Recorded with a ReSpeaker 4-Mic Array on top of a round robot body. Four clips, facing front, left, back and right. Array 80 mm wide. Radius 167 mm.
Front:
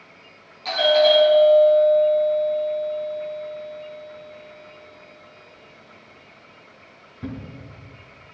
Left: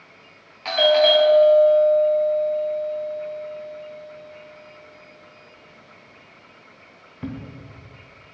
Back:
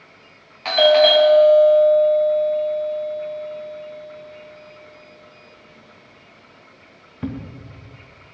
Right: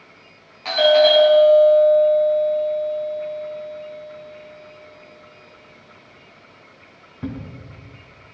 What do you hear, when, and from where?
0.7 s a doorbell: 170° left, 2.5 m